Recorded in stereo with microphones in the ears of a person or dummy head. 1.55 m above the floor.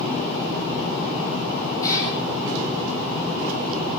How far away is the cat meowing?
About 8.5 m.